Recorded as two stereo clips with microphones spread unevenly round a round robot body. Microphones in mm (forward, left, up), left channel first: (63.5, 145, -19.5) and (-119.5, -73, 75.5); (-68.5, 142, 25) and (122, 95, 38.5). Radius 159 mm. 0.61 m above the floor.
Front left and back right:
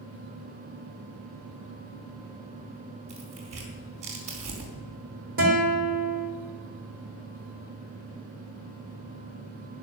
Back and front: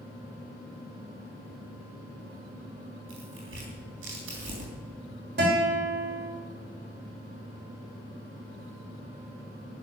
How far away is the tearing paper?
About 4 m.